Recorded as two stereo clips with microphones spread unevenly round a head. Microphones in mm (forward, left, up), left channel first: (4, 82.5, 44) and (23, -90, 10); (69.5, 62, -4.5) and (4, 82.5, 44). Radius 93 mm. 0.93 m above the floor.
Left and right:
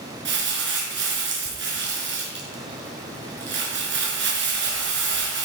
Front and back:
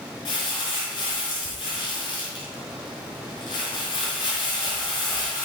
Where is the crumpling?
60° right, 5 m.